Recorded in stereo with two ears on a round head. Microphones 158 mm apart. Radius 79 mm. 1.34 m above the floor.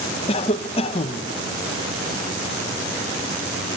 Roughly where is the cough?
Left.